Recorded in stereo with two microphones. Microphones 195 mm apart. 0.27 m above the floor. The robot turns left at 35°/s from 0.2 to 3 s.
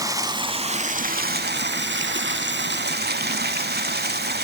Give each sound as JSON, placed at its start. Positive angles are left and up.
{"t": 0.0, "sound": "running water", "azimuth_deg": -20, "distance_m": 0.7}